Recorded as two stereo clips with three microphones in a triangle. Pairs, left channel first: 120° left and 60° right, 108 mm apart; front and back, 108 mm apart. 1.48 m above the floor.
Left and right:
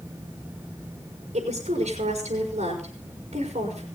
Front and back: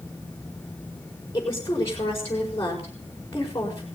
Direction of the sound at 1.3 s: 65° right.